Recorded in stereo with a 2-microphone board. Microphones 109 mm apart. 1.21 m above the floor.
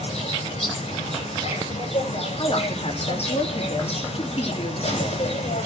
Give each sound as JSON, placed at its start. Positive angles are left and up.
{"t": 0.0, "sound": "an insect", "side_deg": 65, "distance_m": 8.5}
{"t": 2.4, "sound": "a man speaking", "side_deg": 65, "distance_m": 2.5}